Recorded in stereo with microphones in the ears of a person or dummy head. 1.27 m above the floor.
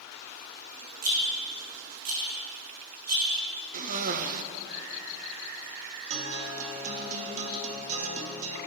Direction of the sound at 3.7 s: 50° right (ahead or behind).